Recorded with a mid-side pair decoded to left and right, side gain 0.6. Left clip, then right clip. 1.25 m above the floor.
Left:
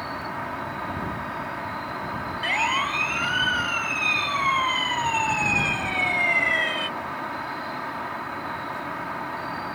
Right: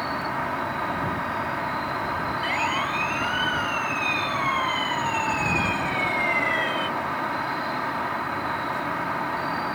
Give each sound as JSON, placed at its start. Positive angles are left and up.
{"t": 0.0, "sound": "an insect", "azimuth_deg": -20}
{"t": 2.4, "sound": "a siren", "azimuth_deg": 20}